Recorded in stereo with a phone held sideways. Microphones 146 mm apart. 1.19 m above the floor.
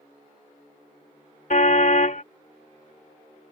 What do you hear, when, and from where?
1.5 s a car horn: 65° left (ahead or behind)